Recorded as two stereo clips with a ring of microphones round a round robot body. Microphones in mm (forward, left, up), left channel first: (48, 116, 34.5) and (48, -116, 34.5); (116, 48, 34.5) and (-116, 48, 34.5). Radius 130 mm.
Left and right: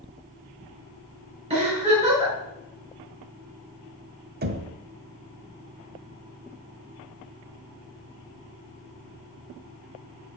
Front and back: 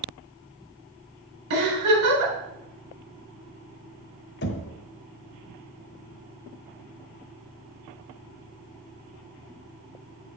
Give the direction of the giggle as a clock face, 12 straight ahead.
5 o'clock.